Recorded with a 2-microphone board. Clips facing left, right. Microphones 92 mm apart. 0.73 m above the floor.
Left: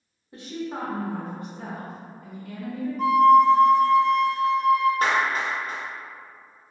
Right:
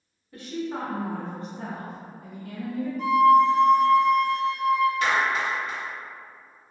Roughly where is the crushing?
No crushing in this recording.